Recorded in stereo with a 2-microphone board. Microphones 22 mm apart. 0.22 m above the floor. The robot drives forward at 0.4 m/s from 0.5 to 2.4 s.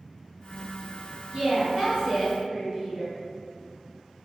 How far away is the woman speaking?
About 1.4 m.